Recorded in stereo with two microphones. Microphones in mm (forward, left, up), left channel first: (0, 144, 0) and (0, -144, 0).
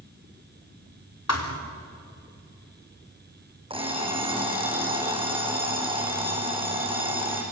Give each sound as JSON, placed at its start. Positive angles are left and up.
{"t": 1.3, "sound": "a thud", "side_deg": 60, "distance_m": 4.0}
{"t": 3.7, "sound": "an alarm clock", "side_deg": -20, "distance_m": 4.5}